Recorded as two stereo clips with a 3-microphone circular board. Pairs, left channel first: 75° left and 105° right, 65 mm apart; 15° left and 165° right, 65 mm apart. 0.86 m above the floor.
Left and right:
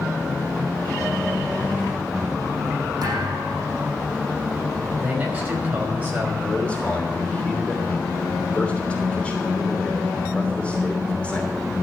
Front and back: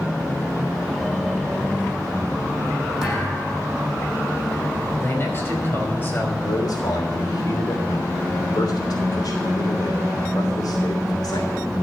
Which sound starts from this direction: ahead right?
A man speaking, at 5.0 s.